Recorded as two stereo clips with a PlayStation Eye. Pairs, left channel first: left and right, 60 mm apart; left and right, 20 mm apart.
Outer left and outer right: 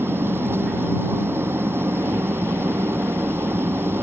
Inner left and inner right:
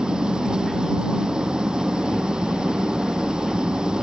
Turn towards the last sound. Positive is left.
turn(degrees=-40)  # may be behind; listen again after turning